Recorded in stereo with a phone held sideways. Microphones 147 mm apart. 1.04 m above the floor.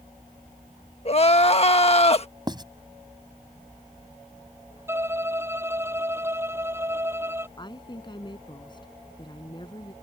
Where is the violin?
15° right (ahead or behind).